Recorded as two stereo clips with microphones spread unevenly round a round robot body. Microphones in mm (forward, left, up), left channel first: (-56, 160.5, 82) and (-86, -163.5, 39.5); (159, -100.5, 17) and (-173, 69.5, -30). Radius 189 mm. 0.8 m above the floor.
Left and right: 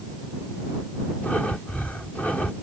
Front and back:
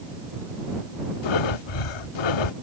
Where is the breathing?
Straight ahead.